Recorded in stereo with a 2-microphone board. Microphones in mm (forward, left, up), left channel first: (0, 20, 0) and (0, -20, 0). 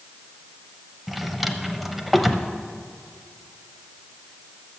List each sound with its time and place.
1.1 s a drawer: centre (ahead or behind), 0.7 m